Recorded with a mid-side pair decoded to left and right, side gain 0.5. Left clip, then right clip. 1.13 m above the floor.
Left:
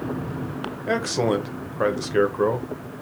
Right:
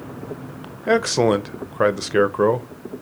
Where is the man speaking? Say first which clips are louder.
Right 5 dB; 30° right, 0.5 m.